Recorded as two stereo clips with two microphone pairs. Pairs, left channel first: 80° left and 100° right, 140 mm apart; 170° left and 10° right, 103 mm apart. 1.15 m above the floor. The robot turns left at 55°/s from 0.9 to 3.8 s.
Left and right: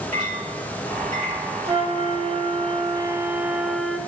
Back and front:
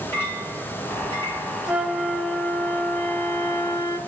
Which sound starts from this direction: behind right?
A clink, at 0.1 s.